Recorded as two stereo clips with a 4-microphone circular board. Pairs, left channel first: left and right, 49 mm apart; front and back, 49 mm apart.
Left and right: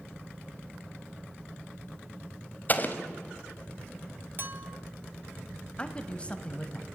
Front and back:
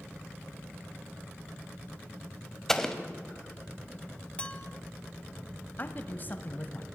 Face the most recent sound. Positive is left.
turn(degrees=35)